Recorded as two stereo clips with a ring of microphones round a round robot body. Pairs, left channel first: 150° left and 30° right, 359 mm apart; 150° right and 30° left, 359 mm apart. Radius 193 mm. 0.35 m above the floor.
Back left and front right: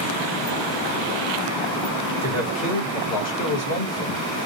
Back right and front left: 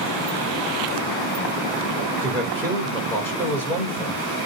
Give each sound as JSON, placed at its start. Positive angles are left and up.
{"t": 2.2, "sound": "a man speaking", "azimuth_deg": 125, "distance_m": 1.7}